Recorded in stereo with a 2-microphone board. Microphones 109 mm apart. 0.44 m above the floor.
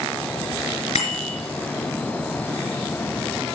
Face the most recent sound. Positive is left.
turn(degrees=80)